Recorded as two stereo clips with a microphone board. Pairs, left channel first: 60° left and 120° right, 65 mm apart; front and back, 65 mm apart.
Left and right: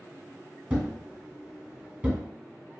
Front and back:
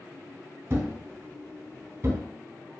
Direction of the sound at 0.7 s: 175° right.